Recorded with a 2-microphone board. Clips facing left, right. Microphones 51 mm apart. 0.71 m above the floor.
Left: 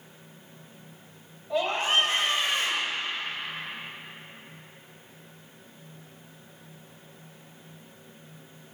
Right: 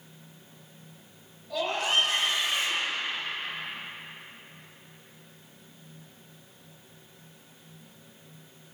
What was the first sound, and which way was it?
A scream, 30° left (ahead or behind).